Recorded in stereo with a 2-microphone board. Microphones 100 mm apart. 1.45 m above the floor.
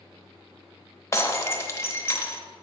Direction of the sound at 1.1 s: 25° left (ahead or behind).